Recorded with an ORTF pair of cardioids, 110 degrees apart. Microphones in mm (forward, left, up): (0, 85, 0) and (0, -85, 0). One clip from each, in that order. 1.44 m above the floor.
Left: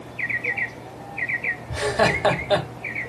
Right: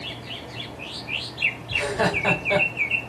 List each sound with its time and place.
1.7 s laughter: 30° left, 1.2 m